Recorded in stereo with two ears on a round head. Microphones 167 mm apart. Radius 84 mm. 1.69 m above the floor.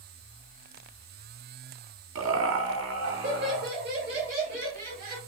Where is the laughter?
80° right, 0.6 m; by 5.2 s 50° right (ahead or behind), 2 m.